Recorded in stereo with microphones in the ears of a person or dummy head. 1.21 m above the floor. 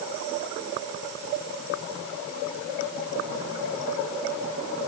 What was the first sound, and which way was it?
Only background noise.